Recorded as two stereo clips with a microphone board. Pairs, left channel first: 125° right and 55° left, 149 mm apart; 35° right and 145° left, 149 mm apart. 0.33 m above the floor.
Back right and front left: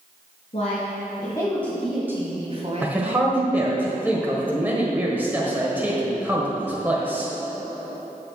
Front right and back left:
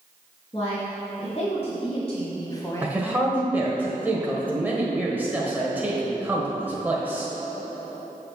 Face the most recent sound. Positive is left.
turn(degrees=100)